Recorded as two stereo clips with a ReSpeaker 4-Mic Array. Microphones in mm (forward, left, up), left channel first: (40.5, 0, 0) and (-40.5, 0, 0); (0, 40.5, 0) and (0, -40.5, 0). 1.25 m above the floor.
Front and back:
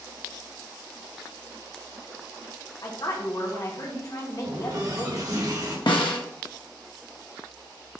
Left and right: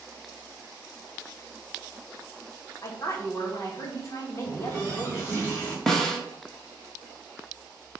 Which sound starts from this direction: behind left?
A running tap, at 4.4 s.